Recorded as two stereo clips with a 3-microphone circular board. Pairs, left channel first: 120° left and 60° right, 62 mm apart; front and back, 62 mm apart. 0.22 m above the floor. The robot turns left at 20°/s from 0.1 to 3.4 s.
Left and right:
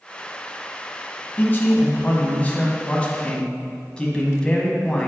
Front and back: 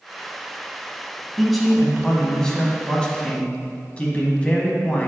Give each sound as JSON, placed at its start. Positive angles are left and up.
{"t": 1.4, "sound": "a man speaking", "azimuth_deg": 95, "distance_m": 1.2}